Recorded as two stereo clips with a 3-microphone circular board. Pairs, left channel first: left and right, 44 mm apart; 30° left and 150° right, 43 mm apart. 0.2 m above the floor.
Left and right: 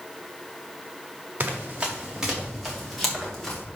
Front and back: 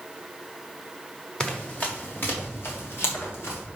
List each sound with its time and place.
1.4 s running footsteps: 35° right, 2.5 m; by 3.6 s 5° left, 5 m